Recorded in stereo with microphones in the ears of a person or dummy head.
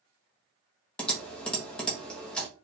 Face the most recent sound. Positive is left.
turn(degrees=5)  # may be behind; listen again after turning